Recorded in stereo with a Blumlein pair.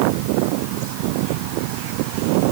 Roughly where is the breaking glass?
I don't hear breaking glass.